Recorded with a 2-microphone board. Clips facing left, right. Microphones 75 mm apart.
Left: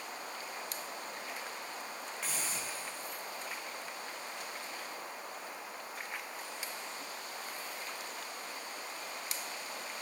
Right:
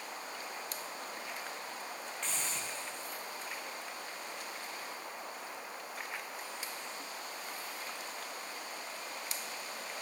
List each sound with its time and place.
2.2 s a hiss: 10° left (ahead or behind), 4.5 m